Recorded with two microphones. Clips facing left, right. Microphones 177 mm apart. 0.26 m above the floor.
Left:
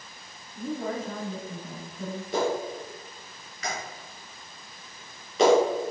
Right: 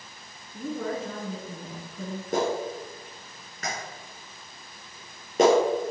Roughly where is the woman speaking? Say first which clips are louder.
Even; right.